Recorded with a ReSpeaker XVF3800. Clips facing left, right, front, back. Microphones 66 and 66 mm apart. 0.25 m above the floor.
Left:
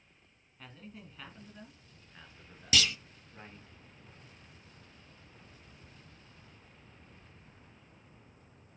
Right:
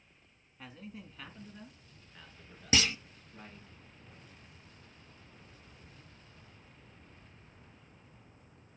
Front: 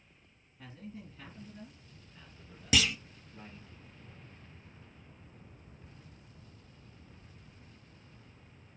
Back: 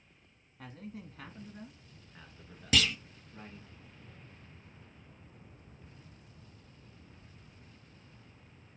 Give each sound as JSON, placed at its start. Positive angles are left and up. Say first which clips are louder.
{"t": 0.6, "sound": "a man speaking", "louder": "right 2 dB, back 1 dB", "azimuth_deg": -170, "distance_m": 2.5}
{"t": 2.7, "sound": "a clunk", "louder": "even, even", "azimuth_deg": -80, "distance_m": 0.6}